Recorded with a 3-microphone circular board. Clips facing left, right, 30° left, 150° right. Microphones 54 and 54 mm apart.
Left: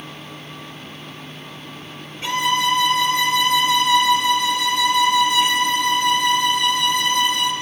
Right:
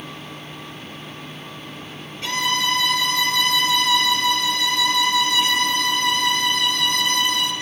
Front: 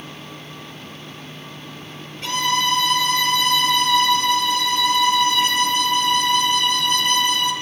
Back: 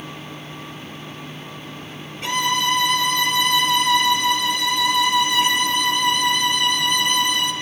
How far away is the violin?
About 1.9 m.